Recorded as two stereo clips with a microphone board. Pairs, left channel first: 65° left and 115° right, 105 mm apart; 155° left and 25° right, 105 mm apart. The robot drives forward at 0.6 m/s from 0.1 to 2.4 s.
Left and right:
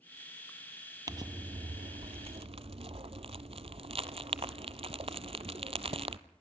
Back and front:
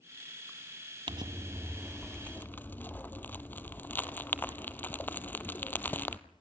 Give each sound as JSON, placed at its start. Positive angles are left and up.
{"t": 1.1, "sound": "crumpling", "azimuth_deg": -60, "distance_m": 0.6}